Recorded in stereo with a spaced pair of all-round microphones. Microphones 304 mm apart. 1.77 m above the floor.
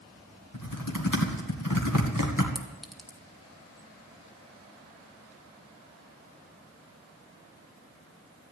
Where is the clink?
Centre (ahead or behind), 1.4 m.